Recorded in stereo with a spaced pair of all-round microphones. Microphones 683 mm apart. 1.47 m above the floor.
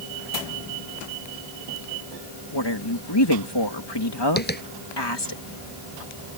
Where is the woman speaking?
40° left (ahead or behind).